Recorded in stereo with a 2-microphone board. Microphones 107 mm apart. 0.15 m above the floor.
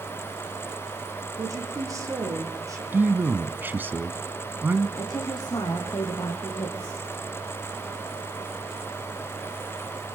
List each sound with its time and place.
1.4 s a woman speaking: 30° right (ahead or behind), 7 m
2.9 s a man speaking: 20° right (ahead or behind), 1.0 m
5.0 s a woman speaking: 40° left (ahead or behind), 5.5 m